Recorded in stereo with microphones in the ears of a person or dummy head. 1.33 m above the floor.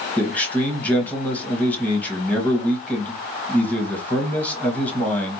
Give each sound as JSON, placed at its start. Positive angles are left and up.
{"t": 0.2, "sound": "a man speaking", "side_deg": 10, "distance_m": 1.1}